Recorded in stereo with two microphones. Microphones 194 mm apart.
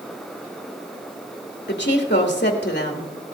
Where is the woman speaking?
55° left (ahead or behind), 1.9 m.